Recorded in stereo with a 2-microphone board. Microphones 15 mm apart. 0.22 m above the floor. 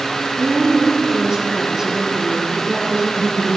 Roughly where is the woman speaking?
Right.